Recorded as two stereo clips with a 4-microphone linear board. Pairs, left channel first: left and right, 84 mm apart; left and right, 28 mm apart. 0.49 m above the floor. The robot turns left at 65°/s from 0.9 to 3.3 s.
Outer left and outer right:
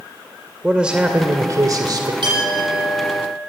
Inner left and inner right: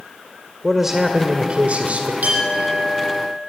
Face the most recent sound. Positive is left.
turn(degrees=175)